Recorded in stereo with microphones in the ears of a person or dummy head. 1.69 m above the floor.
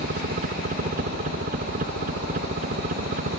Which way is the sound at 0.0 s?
45° right (ahead or behind).